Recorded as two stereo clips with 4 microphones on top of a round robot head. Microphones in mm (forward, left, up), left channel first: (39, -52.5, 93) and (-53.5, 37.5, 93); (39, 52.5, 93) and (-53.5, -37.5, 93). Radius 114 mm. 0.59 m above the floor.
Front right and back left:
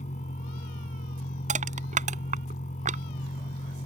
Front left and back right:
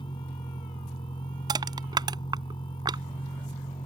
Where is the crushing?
165° left.